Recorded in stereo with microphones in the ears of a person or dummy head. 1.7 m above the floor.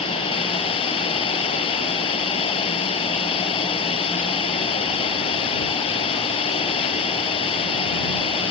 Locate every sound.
0.0 s running water: 30° left (ahead or behind)